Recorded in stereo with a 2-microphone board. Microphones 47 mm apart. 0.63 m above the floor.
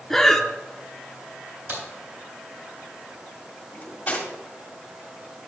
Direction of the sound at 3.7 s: 35° left (ahead or behind).